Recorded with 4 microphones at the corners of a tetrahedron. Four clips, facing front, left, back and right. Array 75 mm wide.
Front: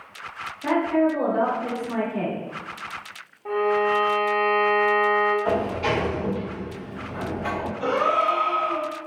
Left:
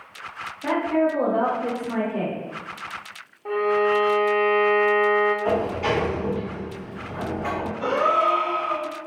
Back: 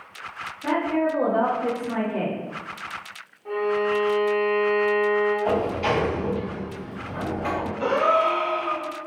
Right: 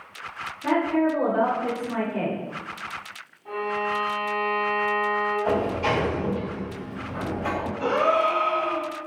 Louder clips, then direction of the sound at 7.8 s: Left 1 dB, back 1 dB; straight behind.